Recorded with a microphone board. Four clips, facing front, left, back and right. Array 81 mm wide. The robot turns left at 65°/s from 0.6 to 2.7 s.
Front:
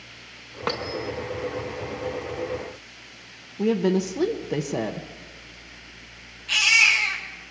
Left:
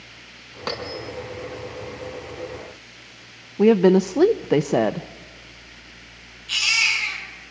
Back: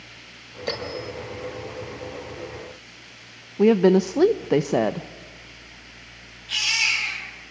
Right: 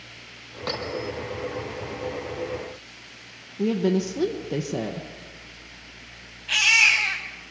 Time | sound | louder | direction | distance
0.7 | a bell | even, front 2 dB | 15° left | 2.5 m
3.6 | a woman speaking | left 8 dB, back 6 dB | 125° left | 0.5 m
6.5 | a baby crying | right 3 dB, front 6 dB | 75° right | 4 m